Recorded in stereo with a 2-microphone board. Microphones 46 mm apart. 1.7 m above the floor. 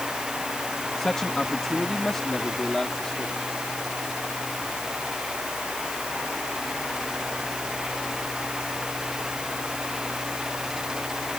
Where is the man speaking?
15° left (ahead or behind); by 3.3 s 10° left (ahead or behind).